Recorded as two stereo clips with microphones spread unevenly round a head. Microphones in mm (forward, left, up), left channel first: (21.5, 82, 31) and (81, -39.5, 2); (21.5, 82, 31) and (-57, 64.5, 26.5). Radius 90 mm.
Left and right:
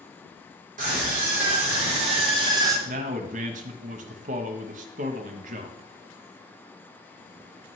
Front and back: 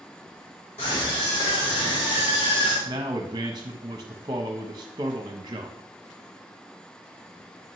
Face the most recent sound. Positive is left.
turn(degrees=-110)